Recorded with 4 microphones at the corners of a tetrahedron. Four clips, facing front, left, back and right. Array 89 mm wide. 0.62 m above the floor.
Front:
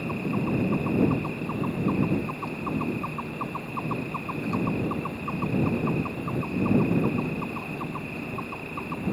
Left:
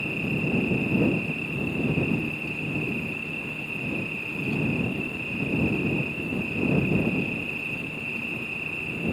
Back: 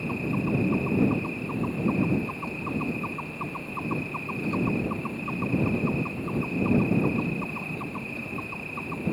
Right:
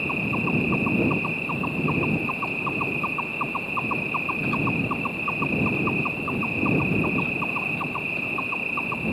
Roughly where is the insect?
Right.